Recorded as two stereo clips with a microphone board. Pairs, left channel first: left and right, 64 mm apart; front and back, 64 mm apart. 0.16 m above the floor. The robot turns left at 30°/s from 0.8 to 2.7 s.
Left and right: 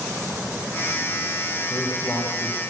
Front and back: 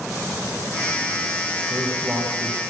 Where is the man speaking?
150° left, 9 m; by 2.6 s 120° left, 9 m.